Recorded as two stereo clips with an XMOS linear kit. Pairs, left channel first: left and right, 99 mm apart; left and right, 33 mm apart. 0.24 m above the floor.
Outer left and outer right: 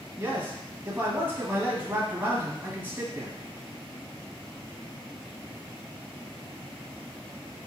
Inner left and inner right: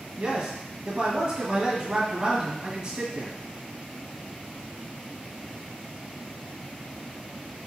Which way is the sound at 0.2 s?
20° right (ahead or behind).